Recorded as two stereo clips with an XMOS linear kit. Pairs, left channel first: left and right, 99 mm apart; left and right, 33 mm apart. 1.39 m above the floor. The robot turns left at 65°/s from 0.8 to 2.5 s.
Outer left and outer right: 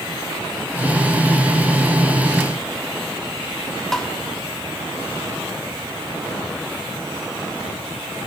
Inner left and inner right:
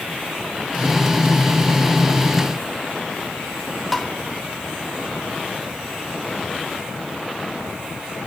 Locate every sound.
3.9 s tapping: 5° left (ahead or behind), 2 m